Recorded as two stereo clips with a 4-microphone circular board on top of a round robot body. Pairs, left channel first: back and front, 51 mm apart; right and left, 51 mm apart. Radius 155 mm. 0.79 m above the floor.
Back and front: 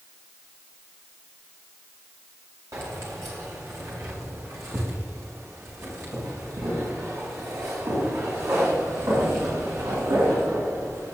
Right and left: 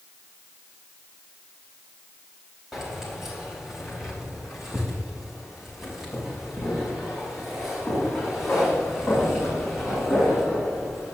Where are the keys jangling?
5° left, 4 m; by 11.1 s straight ahead, 8.5 m.